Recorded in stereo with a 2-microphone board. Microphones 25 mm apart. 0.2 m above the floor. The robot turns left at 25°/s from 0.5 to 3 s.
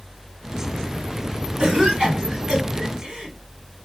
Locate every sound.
1.6 s a cough: 40° right (ahead or behind), 1.7 m